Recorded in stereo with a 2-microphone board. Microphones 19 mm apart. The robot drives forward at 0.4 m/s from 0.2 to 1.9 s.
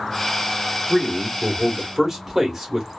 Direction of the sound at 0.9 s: 25° right (ahead or behind).